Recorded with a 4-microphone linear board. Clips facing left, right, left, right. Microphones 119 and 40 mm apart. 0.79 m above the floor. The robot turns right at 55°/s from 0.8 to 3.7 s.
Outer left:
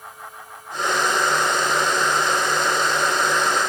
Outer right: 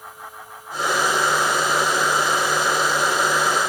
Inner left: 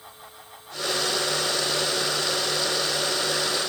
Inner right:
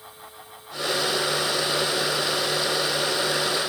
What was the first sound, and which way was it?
Only background noise.